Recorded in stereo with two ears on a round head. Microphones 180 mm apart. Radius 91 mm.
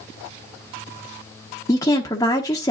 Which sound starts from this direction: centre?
A woman speaking, at 1.7 s.